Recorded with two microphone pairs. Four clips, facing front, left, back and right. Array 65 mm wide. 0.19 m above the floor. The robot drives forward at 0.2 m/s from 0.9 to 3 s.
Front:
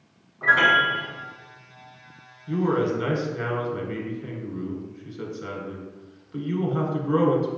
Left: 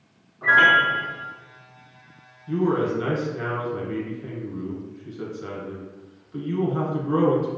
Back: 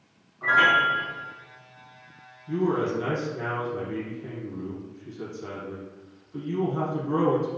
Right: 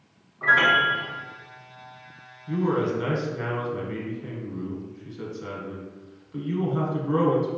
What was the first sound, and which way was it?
A piano, 45° right.